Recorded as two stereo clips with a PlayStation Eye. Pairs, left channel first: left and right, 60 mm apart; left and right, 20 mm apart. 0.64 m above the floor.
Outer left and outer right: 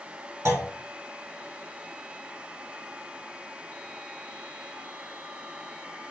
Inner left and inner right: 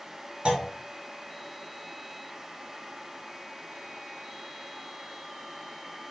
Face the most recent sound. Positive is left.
turn(degrees=-55)  # may be behind; listen again after turning